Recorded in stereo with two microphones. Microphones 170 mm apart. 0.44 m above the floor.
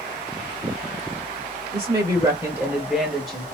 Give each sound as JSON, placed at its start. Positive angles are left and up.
{"t": 1.7, "sound": "a woman speaking", "side_deg": -35, "distance_m": 1.2}